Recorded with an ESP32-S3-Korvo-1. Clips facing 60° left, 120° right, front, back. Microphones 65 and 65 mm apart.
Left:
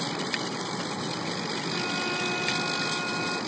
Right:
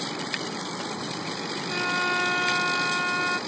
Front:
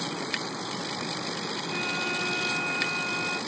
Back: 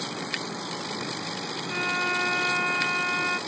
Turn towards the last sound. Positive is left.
turn(degrees=-140)